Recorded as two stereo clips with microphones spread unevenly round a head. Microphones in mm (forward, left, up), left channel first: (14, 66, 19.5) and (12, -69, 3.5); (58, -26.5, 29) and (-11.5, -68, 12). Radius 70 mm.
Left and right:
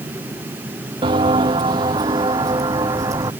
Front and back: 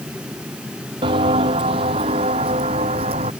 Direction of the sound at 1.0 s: 150° right.